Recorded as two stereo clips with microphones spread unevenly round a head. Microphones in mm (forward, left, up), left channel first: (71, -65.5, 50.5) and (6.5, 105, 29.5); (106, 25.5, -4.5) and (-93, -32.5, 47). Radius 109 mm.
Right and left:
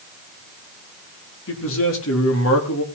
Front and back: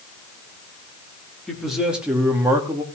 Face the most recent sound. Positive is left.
turn(degrees=-90)